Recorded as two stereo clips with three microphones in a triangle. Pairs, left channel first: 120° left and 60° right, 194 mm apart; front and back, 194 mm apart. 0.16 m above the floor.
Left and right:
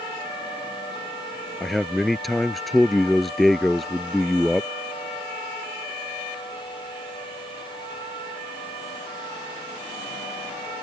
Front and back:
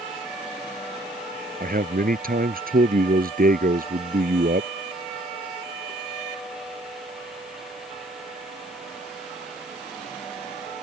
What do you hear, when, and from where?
1.6 s a man speaking: 150° right